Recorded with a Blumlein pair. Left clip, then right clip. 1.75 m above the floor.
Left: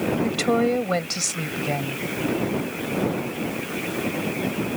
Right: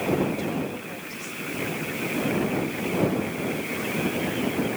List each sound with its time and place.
0.2 s a woman speaking: 40° left